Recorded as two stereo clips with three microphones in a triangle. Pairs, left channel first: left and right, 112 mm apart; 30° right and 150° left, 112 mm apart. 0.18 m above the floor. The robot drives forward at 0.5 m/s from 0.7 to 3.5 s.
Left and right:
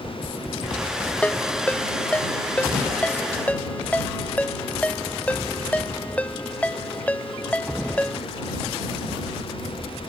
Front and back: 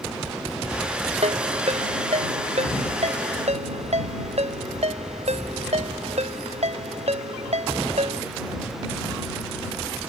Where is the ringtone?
165° left; by 8.2 s 170° left.